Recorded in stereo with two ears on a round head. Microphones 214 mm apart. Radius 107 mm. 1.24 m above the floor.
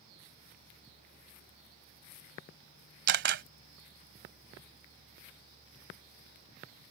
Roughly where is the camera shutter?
Right.